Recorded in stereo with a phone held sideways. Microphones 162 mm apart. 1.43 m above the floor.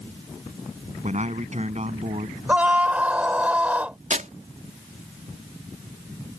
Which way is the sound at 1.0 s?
45° right (ahead or behind).